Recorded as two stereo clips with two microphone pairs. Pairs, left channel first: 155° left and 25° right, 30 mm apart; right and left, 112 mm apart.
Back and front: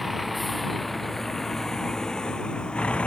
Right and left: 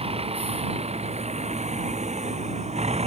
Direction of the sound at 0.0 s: 60° left.